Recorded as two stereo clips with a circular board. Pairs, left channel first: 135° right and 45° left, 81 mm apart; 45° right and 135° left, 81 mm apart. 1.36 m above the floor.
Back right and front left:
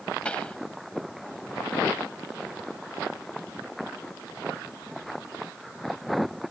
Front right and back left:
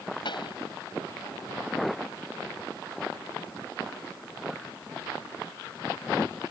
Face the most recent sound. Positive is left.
turn(degrees=-60)